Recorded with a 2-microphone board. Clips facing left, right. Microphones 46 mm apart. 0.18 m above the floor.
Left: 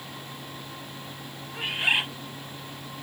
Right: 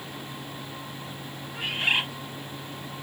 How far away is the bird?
About 3.5 m.